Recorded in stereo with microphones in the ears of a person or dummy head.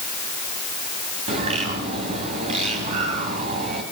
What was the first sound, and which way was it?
A bird, 35° right (ahead or behind).